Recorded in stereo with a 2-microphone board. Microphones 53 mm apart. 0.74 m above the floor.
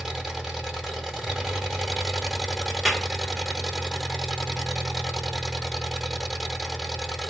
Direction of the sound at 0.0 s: 5° right (ahead or behind).